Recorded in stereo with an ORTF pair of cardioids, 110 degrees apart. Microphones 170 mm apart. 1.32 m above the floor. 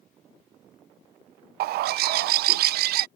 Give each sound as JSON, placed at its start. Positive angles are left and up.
{"t": 1.6, "sound": "a bird", "azimuth_deg": -70}